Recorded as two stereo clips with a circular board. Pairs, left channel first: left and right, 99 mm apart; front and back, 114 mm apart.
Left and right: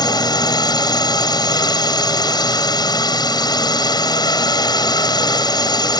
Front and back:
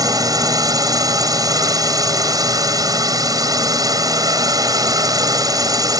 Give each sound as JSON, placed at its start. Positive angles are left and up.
{"t": 0.0, "sound": "a drone", "azimuth_deg": 130}